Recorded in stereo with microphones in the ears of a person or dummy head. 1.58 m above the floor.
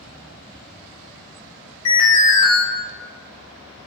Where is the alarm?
30° left (ahead or behind), 1.6 m.